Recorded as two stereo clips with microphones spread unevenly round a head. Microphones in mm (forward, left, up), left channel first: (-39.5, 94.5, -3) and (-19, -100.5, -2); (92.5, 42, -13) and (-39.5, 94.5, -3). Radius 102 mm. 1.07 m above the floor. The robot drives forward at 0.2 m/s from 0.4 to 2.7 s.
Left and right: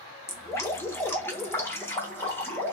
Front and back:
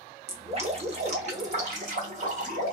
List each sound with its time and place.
0.3 s dripping: 170° left, 0.8 m; by 2.7 s 175° left, 1.2 m